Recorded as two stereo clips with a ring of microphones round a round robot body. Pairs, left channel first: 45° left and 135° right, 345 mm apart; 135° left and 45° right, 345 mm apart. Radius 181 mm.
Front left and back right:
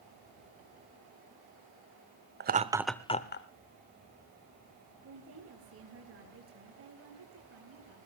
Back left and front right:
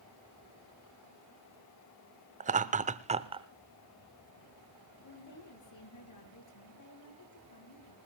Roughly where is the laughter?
Right.